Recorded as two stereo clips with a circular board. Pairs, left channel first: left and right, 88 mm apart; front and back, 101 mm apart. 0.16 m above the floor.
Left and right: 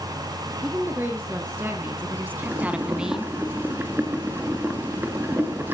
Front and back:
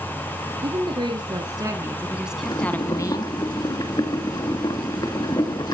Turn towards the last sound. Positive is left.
turn(degrees=-30)